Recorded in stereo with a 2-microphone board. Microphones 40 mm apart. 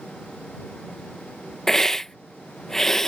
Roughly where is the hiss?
Centre.